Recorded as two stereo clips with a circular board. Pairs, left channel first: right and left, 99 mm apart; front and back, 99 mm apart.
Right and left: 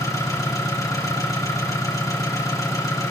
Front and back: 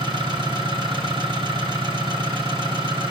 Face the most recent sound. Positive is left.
turn(degrees=-145)